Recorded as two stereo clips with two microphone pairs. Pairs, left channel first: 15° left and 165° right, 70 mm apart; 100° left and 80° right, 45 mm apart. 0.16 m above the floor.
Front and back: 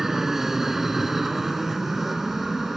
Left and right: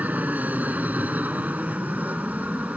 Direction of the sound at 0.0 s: 80° right.